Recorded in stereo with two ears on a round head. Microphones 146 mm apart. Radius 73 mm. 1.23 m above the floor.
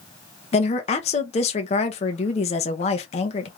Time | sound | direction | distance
0.5 | a woman speaking | 40° left (ahead or behind) | 0.8 m